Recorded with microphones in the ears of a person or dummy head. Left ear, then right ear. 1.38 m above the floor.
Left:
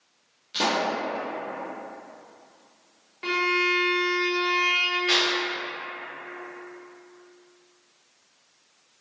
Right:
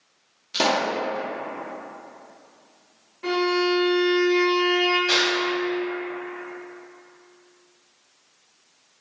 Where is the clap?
10° left (ahead or behind), 0.9 m.